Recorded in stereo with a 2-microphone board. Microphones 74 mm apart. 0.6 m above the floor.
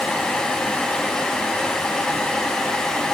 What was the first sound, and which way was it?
Only background noise.